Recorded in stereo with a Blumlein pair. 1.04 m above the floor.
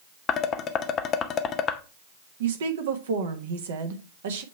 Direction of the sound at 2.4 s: 60° right.